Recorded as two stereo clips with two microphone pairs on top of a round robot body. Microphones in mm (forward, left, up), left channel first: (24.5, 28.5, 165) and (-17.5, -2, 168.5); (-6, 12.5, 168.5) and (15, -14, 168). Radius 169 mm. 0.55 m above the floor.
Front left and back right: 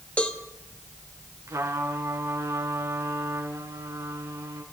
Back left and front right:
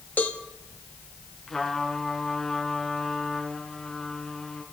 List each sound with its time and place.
0.2 s a cowbell: 100° left, 3 m
1.5 s a trumpet: 155° right, 3 m